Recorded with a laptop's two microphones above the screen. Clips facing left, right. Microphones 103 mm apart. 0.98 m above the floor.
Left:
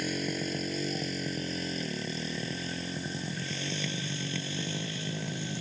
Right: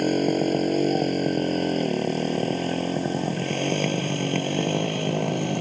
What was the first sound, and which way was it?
A motorcycle, 55° right (ahead or behind).